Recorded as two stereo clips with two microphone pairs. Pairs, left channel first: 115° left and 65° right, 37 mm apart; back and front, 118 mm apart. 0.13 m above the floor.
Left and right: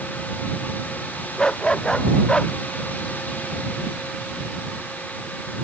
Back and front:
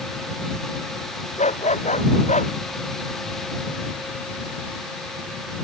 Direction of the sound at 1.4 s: 175° right.